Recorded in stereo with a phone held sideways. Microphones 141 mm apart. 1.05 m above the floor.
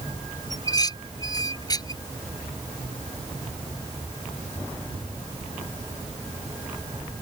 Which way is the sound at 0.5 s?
30° left (ahead or behind).